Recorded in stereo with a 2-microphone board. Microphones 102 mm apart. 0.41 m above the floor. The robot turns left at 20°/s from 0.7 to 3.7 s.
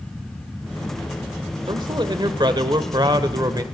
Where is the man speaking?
80° right, 1.1 m; by 3.6 s 120° right, 1.1 m.